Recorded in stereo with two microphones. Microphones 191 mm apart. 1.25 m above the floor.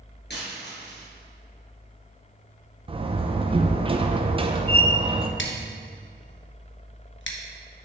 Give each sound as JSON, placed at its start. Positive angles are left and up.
{"t": 0.3, "sound": "a dropped coin", "side_deg": 65, "distance_m": 3.5}
{"t": 2.9, "sound": "a door slam", "side_deg": -30, "distance_m": 0.6}
{"t": 5.4, "sound": "scissors", "side_deg": 85, "distance_m": 1.1}